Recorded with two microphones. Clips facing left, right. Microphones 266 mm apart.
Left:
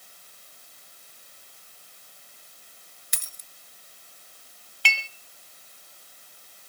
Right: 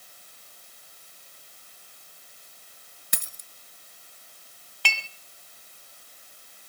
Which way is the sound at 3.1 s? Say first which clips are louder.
Right 9 dB; 65° right (ahead or behind).